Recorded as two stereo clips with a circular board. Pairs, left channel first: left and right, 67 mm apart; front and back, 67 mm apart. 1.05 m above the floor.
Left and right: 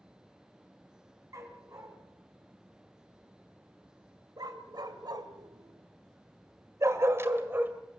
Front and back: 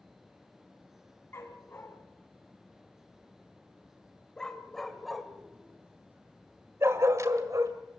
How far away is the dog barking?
About 4 m.